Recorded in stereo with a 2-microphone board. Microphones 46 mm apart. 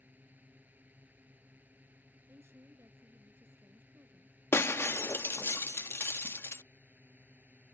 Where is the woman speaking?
70° right (ahead or behind).